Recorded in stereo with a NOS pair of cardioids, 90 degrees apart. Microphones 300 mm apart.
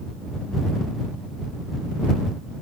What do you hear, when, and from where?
Only background noise.